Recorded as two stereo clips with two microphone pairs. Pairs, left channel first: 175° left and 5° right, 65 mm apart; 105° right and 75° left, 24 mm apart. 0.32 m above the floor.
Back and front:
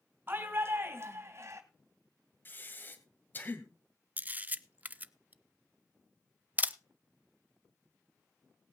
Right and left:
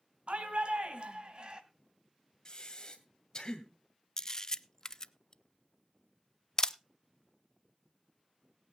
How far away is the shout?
About 3 m.